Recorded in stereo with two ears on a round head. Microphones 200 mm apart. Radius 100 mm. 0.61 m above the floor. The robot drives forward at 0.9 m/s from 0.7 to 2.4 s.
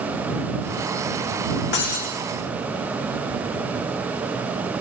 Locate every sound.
1.7 s breaking glass: 55° left (ahead or behind), 7 m